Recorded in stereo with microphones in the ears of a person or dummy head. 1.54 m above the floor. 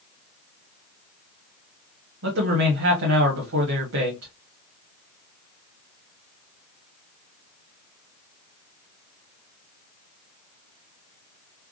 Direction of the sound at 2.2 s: 75° right (ahead or behind).